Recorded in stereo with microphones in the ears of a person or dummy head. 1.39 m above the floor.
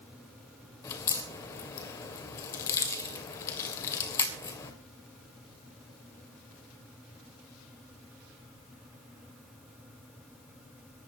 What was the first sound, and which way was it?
A crack, 15° left (ahead or behind).